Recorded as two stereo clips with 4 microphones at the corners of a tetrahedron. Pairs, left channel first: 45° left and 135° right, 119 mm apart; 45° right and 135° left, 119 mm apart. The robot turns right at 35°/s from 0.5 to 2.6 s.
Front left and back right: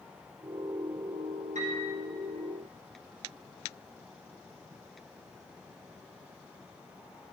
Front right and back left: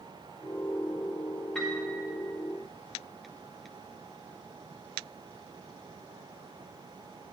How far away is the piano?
About 1.8 m.